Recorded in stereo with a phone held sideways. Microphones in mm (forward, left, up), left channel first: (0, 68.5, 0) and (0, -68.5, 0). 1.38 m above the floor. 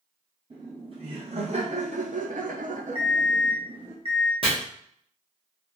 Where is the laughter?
40° right (ahead or behind), 1.4 m; by 4.0 s 25° right (ahead or behind), 0.9 m.